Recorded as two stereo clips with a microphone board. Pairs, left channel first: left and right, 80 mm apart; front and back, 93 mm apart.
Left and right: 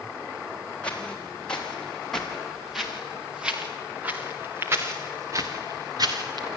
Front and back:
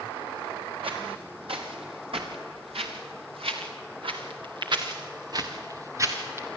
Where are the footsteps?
165° left, 5 m; by 6.5 s 115° right, 3 m.